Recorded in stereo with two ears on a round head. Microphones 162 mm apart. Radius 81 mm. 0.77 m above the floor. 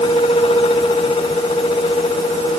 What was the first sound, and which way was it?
Only background noise.